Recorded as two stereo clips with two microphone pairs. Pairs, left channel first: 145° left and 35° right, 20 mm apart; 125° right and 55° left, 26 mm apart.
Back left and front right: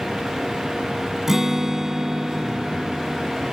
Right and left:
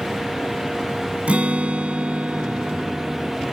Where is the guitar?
30° left.